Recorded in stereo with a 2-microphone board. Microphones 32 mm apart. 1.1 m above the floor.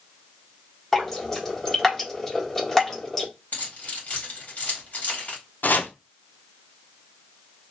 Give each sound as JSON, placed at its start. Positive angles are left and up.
{"t": 0.9, "sound": "dripping", "side_deg": 15, "distance_m": 1.5}
{"t": 3.5, "sound": "keys jangling", "side_deg": 55, "distance_m": 1.4}
{"t": 5.6, "sound": "chopping", "side_deg": 60, "distance_m": 0.6}